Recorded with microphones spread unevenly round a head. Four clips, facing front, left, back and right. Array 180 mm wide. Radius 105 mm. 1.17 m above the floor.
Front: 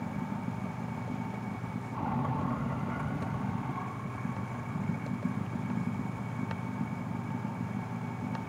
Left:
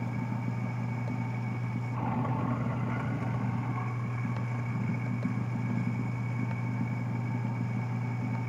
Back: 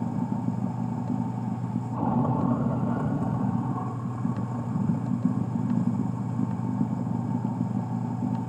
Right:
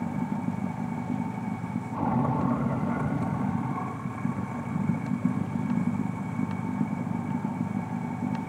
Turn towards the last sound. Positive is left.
turn(degrees=-155)